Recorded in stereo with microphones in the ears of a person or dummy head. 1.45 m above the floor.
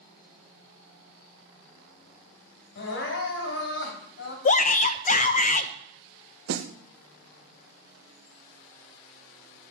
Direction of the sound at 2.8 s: 65° left (ahead or behind).